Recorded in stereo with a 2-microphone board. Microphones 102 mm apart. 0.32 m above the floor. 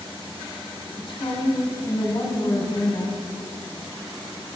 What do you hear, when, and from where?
1.0 s a woman speaking: 50° left (ahead or behind), 1.9 m